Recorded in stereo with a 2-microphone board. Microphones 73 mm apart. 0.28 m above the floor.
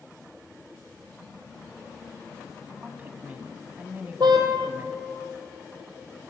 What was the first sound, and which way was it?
A woman speaking, 25° right (ahead or behind).